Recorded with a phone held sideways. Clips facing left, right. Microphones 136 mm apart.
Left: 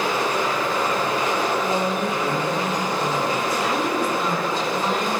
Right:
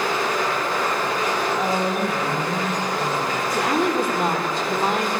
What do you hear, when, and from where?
0.0 s a machine running: 25° left (ahead or behind), 10 m
1.6 s a woman speaking: 45° right (ahead or behind), 7.5 m
3.5 s a woman speaking: 60° right (ahead or behind), 3 m